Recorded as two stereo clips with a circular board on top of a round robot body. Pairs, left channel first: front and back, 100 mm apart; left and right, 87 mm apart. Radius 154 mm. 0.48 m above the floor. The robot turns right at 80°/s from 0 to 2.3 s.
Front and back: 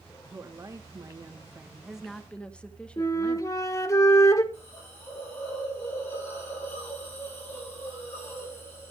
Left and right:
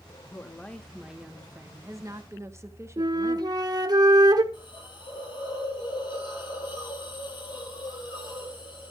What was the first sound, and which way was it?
A woman speaking, 130° left.